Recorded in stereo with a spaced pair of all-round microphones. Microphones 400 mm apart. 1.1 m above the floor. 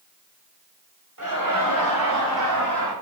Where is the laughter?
50° right (ahead or behind), 2.5 m; by 2.9 s 70° right (ahead or behind), 3.5 m.